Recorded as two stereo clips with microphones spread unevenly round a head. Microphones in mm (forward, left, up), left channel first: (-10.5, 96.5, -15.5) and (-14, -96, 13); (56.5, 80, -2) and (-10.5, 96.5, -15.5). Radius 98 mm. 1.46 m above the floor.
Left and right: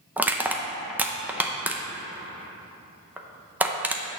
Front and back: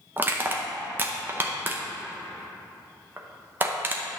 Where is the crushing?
140° right, 0.6 m.